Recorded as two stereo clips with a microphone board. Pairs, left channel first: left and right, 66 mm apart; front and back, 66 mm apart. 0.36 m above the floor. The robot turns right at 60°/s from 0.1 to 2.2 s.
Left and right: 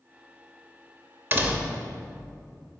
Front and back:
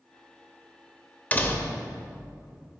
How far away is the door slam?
About 0.6 m.